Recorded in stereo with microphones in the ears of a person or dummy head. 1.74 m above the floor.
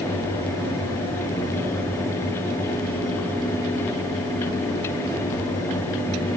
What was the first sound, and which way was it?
Only background noise.